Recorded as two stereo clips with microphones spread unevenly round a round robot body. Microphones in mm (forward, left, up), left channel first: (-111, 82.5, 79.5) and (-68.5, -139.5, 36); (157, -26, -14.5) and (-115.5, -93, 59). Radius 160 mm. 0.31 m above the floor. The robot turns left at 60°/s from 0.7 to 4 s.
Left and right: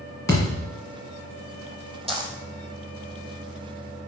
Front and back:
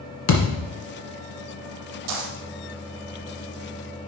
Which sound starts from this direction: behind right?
A dropped coin, at 2.1 s.